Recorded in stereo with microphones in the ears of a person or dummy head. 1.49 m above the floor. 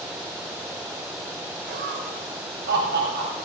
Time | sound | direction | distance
1.7 | laughter | 55° right (ahead or behind) | 2.5 m